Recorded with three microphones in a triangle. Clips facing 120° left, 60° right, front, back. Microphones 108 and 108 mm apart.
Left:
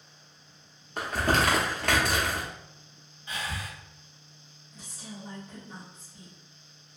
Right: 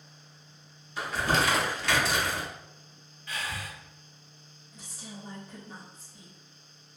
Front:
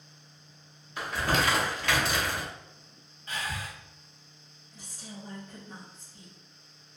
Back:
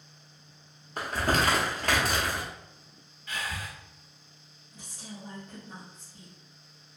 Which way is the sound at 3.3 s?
55° left.